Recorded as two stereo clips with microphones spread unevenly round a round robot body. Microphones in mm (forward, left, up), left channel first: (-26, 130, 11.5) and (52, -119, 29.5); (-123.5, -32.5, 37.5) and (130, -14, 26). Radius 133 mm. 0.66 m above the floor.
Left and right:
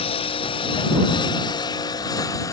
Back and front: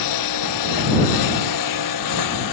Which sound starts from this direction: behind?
A lawn mower, at 0.0 s.